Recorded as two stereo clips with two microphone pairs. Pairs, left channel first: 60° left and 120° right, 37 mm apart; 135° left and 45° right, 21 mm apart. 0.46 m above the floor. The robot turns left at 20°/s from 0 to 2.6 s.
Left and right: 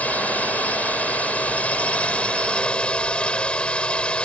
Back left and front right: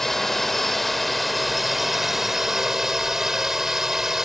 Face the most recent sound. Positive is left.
turn(degrees=15)